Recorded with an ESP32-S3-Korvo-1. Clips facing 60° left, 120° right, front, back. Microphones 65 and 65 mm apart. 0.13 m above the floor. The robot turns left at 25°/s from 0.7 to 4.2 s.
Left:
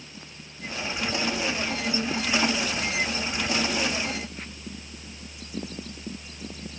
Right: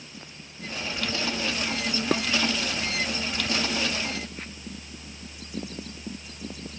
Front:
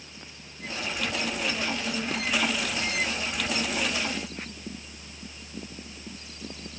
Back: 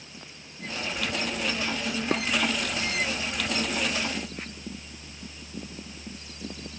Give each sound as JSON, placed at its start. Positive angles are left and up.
{"t": 2.1, "sound": "dishes clattering", "azimuth_deg": -130}